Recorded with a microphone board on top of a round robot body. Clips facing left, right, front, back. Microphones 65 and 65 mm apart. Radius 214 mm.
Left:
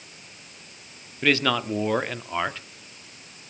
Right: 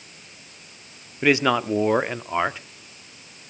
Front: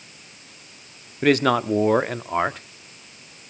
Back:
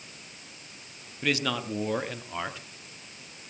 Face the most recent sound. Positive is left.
turn(degrees=-20)